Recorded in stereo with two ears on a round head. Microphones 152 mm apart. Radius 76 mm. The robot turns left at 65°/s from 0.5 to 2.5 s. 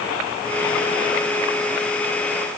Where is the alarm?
I don't hear an alarm.